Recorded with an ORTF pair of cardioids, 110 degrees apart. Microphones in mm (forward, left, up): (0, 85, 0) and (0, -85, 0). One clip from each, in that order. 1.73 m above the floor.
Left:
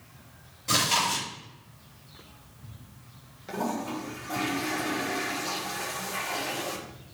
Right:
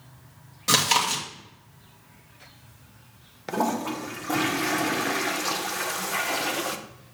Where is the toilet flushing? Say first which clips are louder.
Right 5 dB; 55° right, 0.8 m.